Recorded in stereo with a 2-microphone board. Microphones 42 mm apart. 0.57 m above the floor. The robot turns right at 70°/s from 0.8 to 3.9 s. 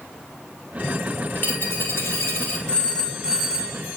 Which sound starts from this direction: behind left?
A phone ringing, at 2.7 s.